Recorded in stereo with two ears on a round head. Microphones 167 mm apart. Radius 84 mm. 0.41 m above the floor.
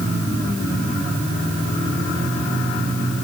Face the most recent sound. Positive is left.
No sound to turn to.